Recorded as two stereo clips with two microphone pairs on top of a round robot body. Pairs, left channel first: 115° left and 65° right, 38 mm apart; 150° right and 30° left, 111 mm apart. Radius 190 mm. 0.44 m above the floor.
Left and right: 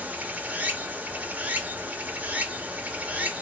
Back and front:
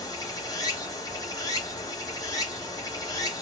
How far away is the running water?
About 1.4 m.